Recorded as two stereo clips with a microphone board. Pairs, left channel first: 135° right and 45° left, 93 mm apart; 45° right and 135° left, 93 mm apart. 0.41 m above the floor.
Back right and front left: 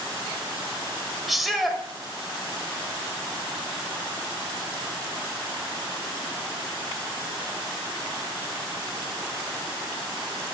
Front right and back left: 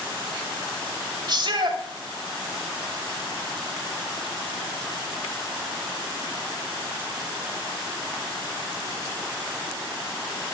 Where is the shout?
135° left, 1.5 m.